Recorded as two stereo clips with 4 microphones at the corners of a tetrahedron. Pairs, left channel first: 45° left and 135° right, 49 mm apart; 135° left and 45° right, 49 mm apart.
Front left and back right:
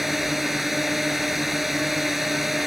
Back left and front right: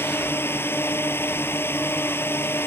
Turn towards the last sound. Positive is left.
turn(degrees=140)